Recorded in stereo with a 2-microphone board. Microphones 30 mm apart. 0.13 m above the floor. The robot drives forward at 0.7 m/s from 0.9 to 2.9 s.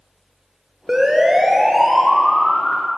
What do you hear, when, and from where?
0.9 s a siren: 20° right (ahead or behind), 2.5 m; by 2.9 s 25° left (ahead or behind), 2 m